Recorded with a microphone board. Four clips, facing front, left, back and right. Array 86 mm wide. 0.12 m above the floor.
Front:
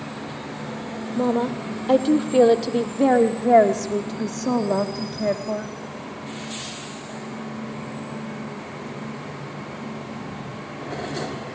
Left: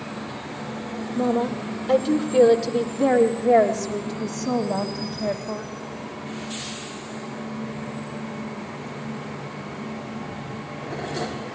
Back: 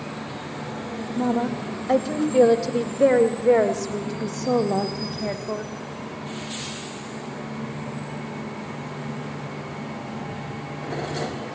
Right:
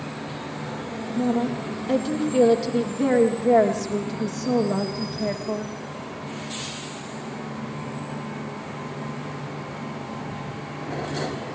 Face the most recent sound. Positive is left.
turn(degrees=-10)